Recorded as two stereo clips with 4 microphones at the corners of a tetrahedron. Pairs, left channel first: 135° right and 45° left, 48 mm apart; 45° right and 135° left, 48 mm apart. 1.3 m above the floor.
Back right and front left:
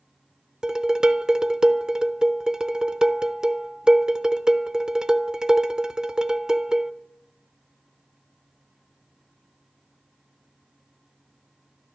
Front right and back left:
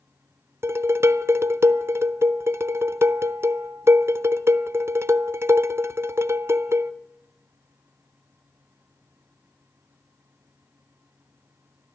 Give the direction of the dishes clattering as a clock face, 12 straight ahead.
8 o'clock.